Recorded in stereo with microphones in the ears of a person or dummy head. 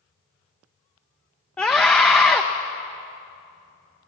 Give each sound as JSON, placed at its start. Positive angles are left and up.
{"t": 1.6, "sound": "a scream", "side_deg": 10, "distance_m": 0.6}